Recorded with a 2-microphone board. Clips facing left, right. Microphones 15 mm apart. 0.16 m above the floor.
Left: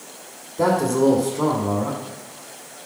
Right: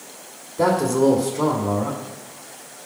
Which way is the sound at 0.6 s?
5° right (ahead or behind).